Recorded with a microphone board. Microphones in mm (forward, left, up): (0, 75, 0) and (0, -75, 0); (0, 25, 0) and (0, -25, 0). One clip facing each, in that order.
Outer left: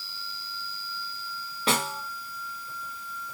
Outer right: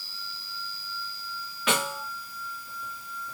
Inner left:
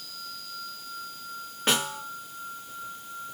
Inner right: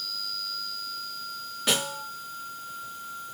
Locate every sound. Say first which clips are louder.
1.7 s a snare drum: even, inner left 1 dB; 35° left (ahead or behind), 3 m